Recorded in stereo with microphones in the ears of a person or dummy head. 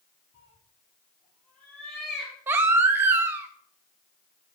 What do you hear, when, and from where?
0.3 s a cat meowing: 25° left (ahead or behind), 4.5 m; by 2.4 s 5° right (ahead or behind), 3 m
2.5 s a baby crying: 15° right (ahead or behind), 0.6 m